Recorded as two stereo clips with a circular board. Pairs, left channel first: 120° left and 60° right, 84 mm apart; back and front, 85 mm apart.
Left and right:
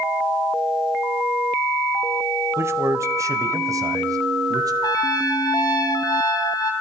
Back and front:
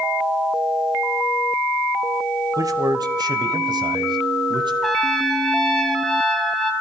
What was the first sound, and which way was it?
A man speaking, 15° right.